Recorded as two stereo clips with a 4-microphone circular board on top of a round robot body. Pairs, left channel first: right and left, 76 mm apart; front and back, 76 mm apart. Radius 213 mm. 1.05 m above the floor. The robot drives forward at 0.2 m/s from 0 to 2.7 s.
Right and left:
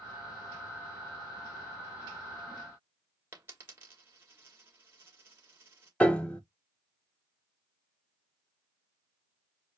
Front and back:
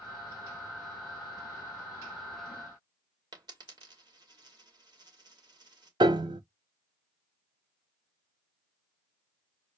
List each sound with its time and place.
3.3 s a dropped coin: 150° left, 1.4 m
6.0 s a piano: 165° right, 0.8 m